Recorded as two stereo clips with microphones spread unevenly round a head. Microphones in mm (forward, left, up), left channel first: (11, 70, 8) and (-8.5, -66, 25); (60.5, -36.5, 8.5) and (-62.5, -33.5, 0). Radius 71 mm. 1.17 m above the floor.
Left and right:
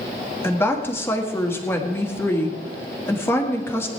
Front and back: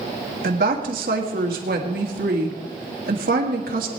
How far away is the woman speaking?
About 1.9 m.